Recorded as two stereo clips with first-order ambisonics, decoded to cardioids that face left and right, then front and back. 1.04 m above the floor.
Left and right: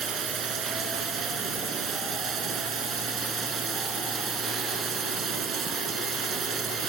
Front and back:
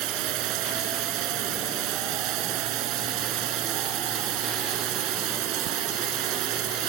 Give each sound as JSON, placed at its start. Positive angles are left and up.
{"t": 0.0, "sound": "running water", "azimuth_deg": -150}